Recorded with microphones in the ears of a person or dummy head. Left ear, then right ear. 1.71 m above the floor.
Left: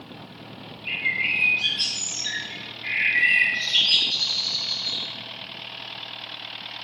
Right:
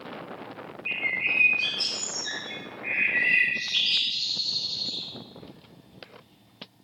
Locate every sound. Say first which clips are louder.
0.8 s a bird: left 3 dB; 25° right (ahead or behind), 6.5 m